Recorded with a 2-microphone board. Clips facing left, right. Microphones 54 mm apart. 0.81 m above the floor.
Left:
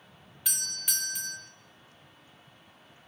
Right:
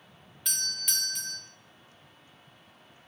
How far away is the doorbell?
About 1.1 m.